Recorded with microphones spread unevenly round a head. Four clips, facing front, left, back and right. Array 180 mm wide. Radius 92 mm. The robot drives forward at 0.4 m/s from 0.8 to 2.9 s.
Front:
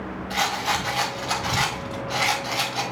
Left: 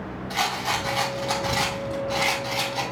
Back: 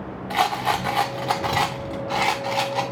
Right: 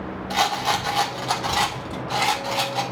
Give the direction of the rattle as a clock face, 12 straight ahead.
5 o'clock.